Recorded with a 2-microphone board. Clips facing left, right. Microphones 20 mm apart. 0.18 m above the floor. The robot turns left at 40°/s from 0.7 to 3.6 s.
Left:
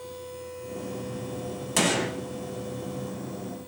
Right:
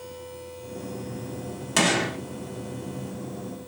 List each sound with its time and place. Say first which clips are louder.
1.8 s a gunshot: right 3 dB; 15° right (ahead or behind), 1.0 m; by 2.2 s 20° right (ahead or behind), 1.0 m